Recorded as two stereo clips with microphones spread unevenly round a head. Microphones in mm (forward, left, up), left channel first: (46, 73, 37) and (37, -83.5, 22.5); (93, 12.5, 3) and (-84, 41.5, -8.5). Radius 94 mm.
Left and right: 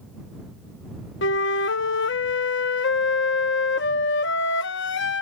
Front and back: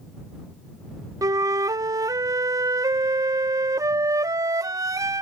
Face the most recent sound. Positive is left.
turn(degrees=100)